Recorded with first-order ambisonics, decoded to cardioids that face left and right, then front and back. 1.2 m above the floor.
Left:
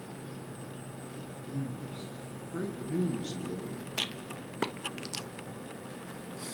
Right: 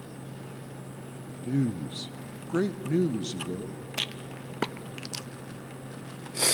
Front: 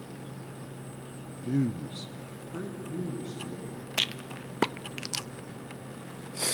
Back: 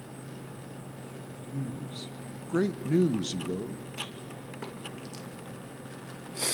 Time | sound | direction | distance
1.4 | a man speaking | 40° right | 0.8 m
4.0 | a rattle | 10° right | 0.5 m